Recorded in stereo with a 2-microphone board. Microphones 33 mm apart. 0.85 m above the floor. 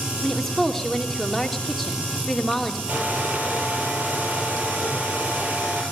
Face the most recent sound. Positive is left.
turn(degrees=-55)  # may be behind; listen again after turning